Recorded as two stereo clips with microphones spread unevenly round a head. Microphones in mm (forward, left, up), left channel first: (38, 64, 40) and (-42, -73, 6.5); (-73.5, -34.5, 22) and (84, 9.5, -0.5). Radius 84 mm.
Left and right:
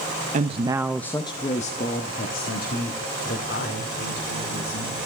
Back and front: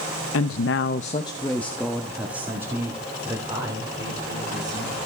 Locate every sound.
0.3 s a woman speaking: 160° right, 0.8 m; by 5.0 s 85° left, 4 m